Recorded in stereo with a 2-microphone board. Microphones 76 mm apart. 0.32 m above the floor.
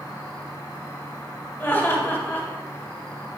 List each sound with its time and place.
0.0 s an insect: 60° left (ahead or behind), 3 m
1.6 s laughter: 35° left (ahead or behind), 1.7 m